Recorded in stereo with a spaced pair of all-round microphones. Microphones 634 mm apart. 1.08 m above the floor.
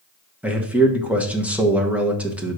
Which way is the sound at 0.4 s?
Centre (ahead or behind).